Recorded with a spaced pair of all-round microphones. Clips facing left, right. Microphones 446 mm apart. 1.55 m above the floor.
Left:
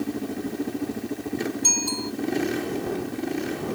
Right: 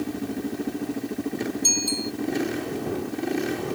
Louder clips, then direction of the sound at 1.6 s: Right 1 dB; 75° left (ahead or behind).